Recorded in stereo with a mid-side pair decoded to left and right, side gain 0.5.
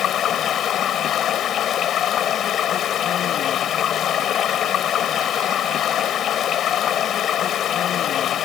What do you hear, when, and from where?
0.0 s running water: 55° left